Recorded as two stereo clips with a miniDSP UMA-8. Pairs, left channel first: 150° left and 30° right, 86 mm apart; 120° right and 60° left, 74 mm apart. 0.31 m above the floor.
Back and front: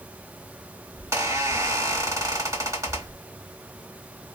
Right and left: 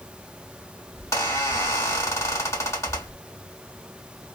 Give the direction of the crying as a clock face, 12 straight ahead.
I don't hear crying.